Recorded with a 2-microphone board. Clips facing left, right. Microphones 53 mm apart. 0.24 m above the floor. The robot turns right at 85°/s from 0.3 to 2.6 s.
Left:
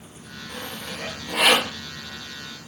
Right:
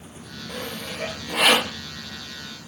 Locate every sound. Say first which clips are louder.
0.5 s sawing: right 2 dB; 75° right (ahead or behind), 3.5 m; by 1.8 s 25° left (ahead or behind), 3.5 m